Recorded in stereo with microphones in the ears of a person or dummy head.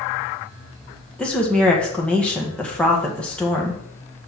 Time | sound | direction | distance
1.2 | a woman speaking | 5° left (ahead or behind) | 1.8 m